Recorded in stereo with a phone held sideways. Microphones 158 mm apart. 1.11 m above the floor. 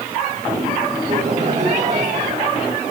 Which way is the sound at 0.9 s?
55° right (ahead or behind).